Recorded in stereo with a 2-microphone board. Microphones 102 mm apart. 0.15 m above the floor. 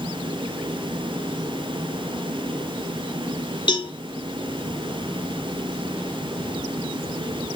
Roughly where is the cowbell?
Left.